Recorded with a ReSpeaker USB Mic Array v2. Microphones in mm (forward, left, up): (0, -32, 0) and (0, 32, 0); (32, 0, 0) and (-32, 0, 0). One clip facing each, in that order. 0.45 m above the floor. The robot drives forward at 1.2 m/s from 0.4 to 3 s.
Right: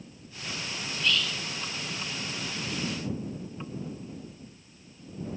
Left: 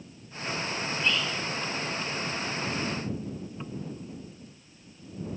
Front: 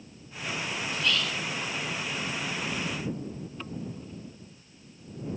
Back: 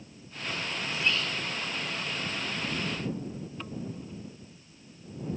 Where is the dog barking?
No dog barking in this recording.